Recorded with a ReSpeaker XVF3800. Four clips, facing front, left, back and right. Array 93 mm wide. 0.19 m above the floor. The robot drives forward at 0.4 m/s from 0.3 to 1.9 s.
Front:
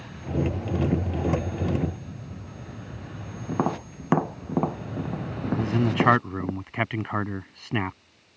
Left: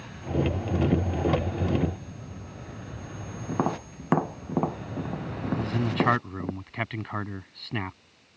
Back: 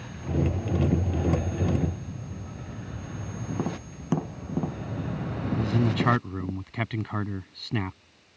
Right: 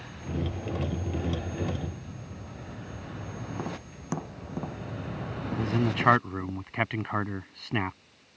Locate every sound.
3.5 s tapping: 35° left
5.5 s a man speaking: 30° right